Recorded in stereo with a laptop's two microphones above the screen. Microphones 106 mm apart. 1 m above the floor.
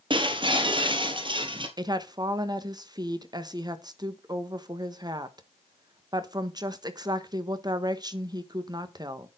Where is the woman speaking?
40° right (ahead or behind), 1.1 m.